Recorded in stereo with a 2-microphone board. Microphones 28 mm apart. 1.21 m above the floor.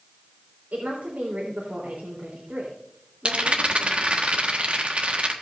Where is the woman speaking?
75° right (ahead or behind), 3.5 m.